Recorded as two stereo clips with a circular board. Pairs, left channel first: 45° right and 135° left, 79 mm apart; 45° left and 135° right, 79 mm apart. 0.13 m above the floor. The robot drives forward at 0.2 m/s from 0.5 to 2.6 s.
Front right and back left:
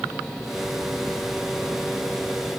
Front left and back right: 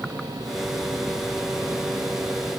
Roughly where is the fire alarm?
I don't hear a fire alarm.